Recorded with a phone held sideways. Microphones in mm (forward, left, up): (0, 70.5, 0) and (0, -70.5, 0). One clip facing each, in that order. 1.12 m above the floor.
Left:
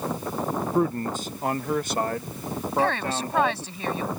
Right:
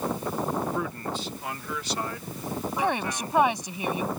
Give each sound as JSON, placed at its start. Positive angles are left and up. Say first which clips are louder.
{"t": 0.7, "sound": "a man speaking", "louder": "left 7 dB", "side_deg": 40}
{"t": 2.8, "sound": "a woman speaking", "louder": "left 4 dB", "side_deg": -15}